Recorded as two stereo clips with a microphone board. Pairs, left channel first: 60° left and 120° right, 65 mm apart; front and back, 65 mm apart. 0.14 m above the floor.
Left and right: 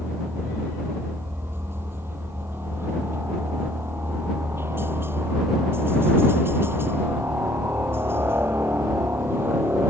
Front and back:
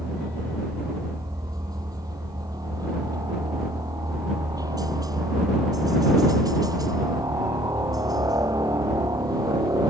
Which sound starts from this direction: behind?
A helicopter, at 0.0 s.